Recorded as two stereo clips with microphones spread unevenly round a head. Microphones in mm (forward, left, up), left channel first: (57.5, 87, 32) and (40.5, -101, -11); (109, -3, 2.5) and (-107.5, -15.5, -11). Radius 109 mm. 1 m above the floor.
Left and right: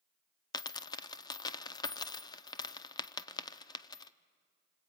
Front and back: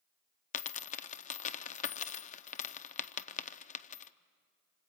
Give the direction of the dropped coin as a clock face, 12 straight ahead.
11 o'clock.